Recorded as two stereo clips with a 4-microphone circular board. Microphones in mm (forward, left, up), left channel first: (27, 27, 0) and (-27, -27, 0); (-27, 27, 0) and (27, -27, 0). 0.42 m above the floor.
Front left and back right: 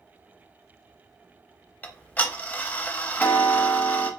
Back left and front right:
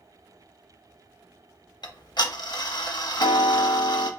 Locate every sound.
1.8 s ticking: 115° left, 0.5 m